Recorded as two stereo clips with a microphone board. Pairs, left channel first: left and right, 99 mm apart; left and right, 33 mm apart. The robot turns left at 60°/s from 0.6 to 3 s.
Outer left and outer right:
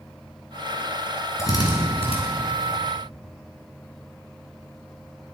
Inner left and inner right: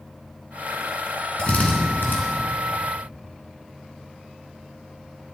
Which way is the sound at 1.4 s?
35° left (ahead or behind).